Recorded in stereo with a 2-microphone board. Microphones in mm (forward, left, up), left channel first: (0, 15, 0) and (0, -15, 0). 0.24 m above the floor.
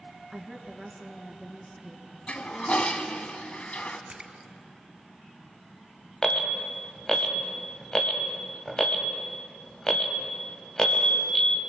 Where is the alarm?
20° left (ahead or behind), 1.5 m.